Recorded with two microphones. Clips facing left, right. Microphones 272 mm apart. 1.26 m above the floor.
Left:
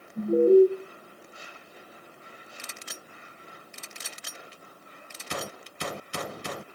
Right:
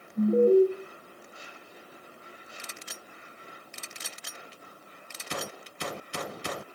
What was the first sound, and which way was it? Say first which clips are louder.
An alarm: left 2 dB; 10° left (ahead or behind).